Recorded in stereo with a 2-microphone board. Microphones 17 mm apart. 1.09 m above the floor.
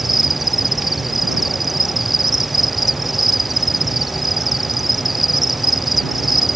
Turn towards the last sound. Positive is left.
turn(degrees=-15)  # may be behind; listen again after turning